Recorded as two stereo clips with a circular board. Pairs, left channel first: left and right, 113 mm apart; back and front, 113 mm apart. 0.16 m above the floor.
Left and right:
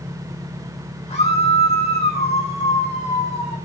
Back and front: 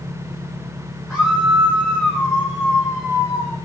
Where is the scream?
100° left, 4 m.